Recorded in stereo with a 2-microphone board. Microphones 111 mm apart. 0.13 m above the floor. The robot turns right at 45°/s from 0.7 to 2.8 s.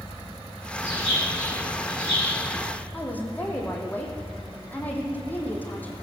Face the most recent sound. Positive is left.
turn(degrees=15)  # may be behind; listen again after turning